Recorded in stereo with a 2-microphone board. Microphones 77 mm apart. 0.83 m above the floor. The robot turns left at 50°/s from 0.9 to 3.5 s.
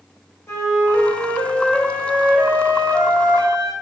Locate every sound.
0.5 s a flute: 40° left, 0.7 m; by 3.7 s 90° right, 0.7 m